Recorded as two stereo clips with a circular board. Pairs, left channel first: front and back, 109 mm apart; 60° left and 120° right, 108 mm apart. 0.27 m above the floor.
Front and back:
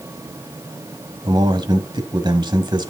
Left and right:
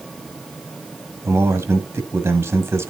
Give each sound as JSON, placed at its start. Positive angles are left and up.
{"t": 1.2, "sound": "a man speaking", "azimuth_deg": -175, "distance_m": 1.6}